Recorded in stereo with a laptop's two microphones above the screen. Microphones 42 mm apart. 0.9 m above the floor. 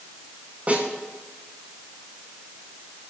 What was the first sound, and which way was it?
A snare drum, 35° right (ahead or behind).